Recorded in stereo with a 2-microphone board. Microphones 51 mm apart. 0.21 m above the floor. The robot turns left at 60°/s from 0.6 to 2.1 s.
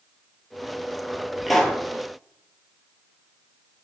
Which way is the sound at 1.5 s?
Centre (ahead or behind).